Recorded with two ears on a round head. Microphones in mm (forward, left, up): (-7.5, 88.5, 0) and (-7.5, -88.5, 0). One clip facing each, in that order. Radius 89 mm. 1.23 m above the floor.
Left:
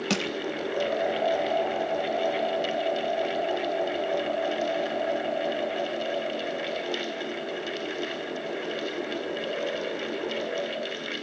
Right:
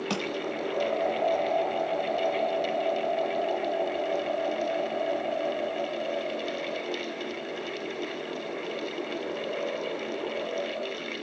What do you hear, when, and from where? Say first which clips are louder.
0.1 s crushing: left 4 dB; 25° left (ahead or behind), 0.5 m